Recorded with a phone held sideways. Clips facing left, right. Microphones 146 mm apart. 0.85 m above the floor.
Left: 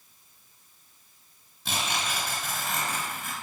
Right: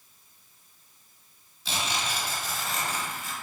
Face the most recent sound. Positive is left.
turn(degrees=60)  # may be behind; listen again after turning